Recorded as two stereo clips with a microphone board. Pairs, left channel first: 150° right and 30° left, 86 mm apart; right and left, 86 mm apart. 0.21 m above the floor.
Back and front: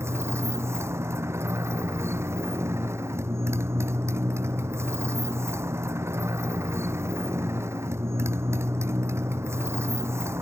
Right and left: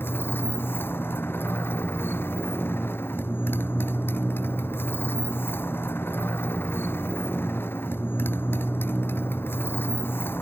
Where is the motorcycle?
30° right.